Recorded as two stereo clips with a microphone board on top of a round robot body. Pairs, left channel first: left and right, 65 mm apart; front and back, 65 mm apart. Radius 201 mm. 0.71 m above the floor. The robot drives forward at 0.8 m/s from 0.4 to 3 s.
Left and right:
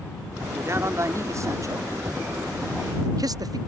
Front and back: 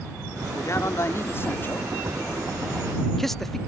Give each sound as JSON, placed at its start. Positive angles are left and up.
{"t": 0.5, "sound": "a man speaking", "azimuth_deg": -40}